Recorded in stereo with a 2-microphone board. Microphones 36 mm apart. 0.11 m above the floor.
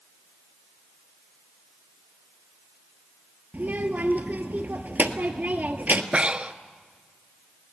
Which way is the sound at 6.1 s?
35° right (ahead or behind).